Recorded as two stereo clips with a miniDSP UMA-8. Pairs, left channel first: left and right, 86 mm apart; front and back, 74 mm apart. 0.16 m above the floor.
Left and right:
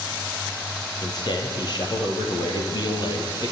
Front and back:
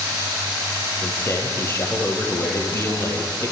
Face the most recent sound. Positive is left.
turn(degrees=55)